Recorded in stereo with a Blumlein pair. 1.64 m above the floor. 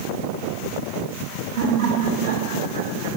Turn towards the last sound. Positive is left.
turn(degrees=-60)